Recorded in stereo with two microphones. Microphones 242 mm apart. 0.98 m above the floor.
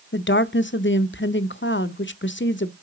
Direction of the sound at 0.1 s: 50° left (ahead or behind).